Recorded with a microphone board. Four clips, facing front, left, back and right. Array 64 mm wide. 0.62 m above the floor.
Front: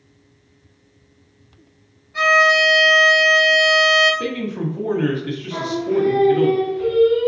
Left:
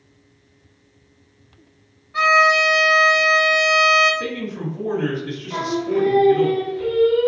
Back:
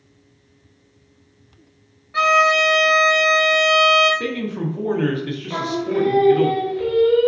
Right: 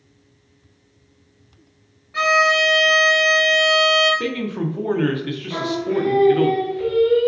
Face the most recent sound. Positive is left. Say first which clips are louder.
# left 1 dB, front 2 dB
turn(degrees=-165)